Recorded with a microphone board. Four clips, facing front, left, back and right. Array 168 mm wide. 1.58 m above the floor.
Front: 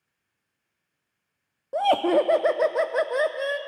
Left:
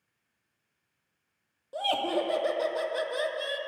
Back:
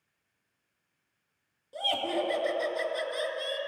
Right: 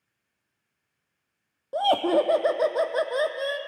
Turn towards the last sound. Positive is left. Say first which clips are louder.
# right 7 dB, front 11 dB
turn(degrees=-35)